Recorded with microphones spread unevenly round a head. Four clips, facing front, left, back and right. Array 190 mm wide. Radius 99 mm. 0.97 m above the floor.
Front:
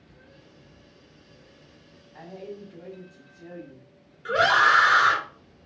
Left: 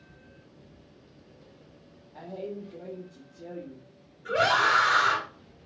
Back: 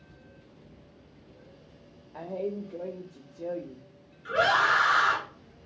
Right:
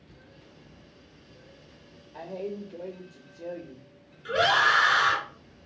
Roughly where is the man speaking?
Behind.